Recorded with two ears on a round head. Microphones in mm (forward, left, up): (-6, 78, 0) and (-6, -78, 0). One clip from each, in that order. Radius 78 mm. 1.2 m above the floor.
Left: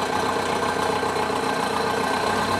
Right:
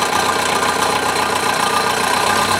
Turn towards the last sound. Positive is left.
turn(degrees=-50)  # may be behind; listen again after turning